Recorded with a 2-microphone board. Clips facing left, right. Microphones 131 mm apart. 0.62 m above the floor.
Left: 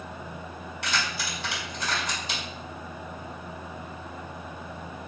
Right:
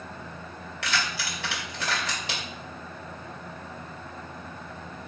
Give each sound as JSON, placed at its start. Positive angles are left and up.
{"t": 0.8, "sound": "keys jangling", "side_deg": -70, "distance_m": 2.0}